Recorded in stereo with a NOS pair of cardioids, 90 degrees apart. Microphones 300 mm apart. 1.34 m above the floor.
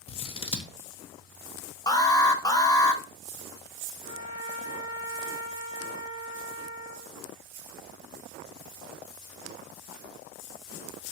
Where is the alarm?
15° left, 0.5 m.